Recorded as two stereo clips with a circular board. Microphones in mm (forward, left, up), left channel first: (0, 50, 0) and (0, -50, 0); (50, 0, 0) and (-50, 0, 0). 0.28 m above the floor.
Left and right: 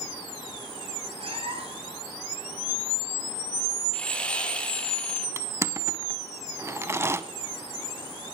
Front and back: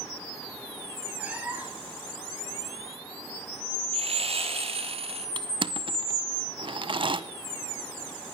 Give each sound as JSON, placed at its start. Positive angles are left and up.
{"t": 1.2, "sound": "a cat meowing", "azimuth_deg": -105, "distance_m": 2.0}
{"t": 3.9, "sound": "sawing", "azimuth_deg": 170, "distance_m": 2.0}
{"t": 5.4, "sound": "crushing", "azimuth_deg": -150, "distance_m": 0.7}